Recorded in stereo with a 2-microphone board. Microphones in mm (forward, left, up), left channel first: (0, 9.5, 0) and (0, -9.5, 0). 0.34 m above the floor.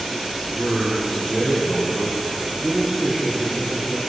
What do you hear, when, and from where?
0.5 s a man speaking: 20° right (ahead or behind), 8 m